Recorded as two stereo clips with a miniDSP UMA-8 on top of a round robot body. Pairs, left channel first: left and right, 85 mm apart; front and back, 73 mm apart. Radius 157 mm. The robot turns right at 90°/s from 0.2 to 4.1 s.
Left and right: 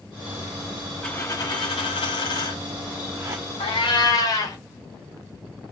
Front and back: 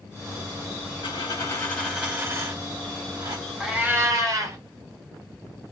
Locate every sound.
1.0 s a dropped coin: 10° left, 1.0 m; by 3.4 s 135° right, 1.0 m
3.6 s a cat meowing: 90° left, 0.9 m; by 4.6 s 135° left, 0.9 m